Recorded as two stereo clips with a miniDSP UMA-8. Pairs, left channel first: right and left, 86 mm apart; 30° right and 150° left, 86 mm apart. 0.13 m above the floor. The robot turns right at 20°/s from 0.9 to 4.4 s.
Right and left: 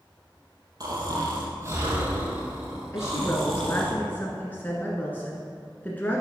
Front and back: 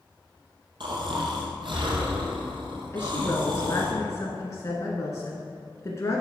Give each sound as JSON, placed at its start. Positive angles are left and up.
{"t": 0.8, "sound": "snoring", "azimuth_deg": 130, "distance_m": 2.5}
{"t": 2.9, "sound": "a woman speaking", "azimuth_deg": -65, "distance_m": 1.3}